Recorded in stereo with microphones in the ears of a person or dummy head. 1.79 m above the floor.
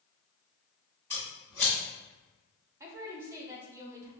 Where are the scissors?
5° left (ahead or behind), 1.5 m.